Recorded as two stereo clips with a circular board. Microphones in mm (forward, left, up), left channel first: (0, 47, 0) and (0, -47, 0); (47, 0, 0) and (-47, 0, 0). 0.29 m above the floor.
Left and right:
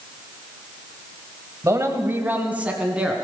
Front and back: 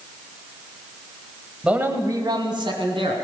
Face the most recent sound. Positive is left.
turn(degrees=-170)